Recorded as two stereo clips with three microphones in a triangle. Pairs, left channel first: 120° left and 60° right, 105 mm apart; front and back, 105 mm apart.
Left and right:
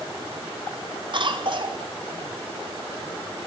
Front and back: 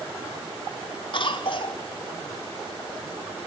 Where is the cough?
30° right, 1.9 m.